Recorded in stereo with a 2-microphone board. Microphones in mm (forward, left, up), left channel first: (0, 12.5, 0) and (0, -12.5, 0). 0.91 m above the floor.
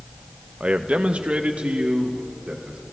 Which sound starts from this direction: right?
A man speaking, at 0.6 s.